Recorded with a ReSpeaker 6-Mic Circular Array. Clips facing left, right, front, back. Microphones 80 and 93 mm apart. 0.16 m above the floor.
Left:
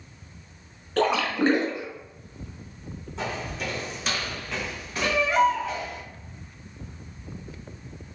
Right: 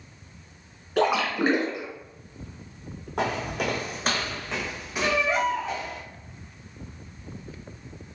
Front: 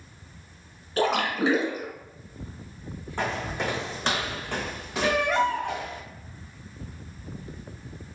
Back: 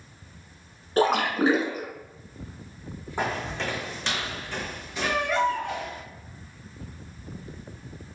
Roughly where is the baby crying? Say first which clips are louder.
Left 3 dB, front 1 dB; ahead right.